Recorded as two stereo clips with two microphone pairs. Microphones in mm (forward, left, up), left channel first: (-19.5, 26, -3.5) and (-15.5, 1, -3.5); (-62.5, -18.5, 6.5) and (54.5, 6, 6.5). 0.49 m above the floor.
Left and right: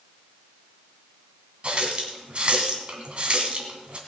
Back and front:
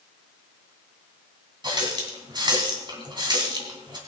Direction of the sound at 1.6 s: 40° right.